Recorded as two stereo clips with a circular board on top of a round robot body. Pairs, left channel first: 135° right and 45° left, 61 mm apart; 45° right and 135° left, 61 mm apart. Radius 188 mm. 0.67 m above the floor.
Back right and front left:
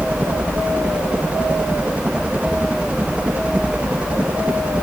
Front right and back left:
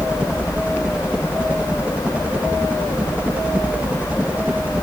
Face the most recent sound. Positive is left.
turn(degrees=95)